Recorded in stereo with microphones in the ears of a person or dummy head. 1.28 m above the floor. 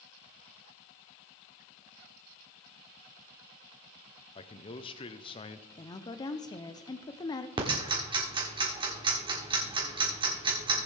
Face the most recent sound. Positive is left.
turn(degrees=-20)  # may be behind; listen again after turning